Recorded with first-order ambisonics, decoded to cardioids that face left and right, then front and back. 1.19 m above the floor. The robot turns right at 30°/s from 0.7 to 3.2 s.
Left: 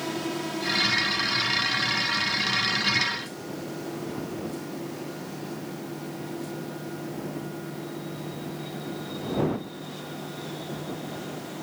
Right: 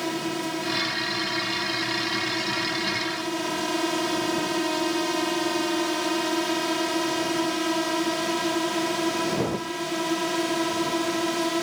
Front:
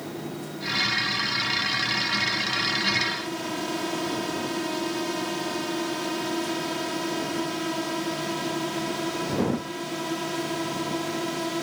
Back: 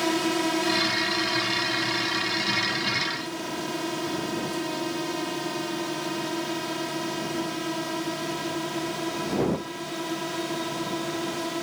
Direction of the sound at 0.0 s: 160° right.